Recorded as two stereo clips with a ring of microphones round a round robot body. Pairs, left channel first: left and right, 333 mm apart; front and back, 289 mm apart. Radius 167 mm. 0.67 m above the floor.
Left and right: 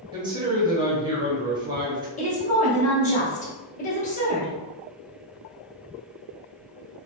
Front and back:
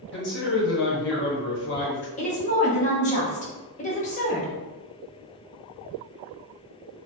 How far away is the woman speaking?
About 0.8 m.